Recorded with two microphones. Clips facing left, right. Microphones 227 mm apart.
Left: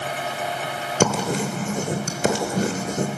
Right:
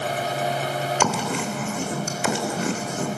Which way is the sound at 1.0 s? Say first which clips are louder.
Left 7 dB; 40° left (ahead or behind).